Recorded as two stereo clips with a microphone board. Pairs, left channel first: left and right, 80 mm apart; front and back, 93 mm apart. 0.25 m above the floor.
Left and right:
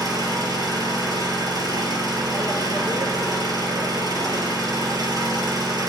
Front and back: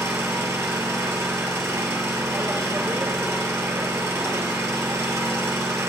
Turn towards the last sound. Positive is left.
turn(degrees=-120)